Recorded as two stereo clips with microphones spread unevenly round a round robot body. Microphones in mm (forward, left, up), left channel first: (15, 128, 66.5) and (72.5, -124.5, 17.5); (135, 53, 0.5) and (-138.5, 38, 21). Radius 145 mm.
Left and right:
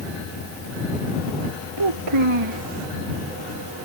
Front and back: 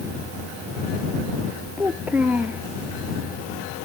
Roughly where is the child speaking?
Right.